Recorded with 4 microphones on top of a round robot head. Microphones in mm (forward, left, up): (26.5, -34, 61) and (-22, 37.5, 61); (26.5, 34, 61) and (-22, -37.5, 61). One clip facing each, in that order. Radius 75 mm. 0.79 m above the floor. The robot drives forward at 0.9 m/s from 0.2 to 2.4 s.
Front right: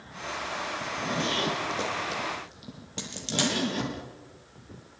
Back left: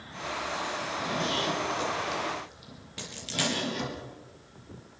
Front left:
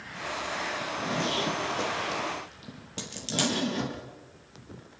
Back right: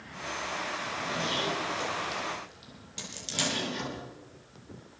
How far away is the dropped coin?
About 6.5 m.